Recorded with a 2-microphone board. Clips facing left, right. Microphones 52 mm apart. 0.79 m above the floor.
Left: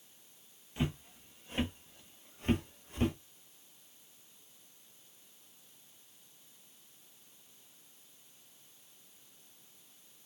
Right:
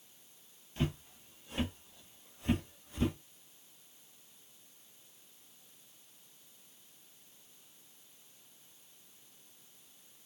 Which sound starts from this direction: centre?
Footsteps, at 0.8 s.